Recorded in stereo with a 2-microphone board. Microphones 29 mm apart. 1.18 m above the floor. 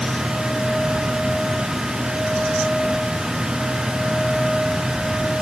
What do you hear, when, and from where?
Only background noise.